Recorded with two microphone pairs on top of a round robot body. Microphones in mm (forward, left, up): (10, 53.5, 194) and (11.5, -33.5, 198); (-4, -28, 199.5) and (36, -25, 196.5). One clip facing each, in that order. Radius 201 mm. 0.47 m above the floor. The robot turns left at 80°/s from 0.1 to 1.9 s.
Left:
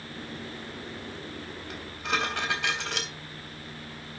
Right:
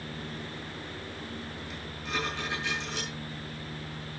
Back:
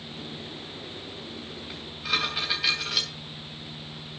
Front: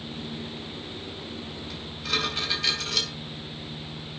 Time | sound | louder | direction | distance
1.7 | dishes clattering | left 6 dB, back 1 dB | 120° left | 3 m